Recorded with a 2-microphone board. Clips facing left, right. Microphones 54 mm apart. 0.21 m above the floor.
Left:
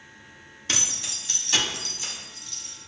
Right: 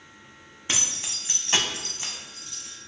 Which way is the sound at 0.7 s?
20° right (ahead or behind).